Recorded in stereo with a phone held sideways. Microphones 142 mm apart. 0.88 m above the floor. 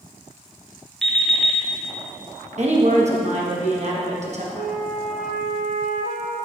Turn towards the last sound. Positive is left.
turn(degrees=-60)  # may be behind; listen again after turning